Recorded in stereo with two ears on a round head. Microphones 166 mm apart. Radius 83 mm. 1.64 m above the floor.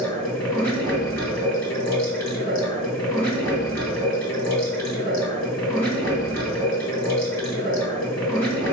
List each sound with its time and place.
0.0 s running water: 5° left (ahead or behind), 3.5 m